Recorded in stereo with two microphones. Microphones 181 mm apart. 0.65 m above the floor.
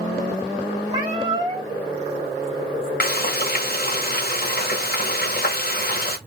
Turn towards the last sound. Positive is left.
turn(degrees=55)  # may be behind; listen again after turning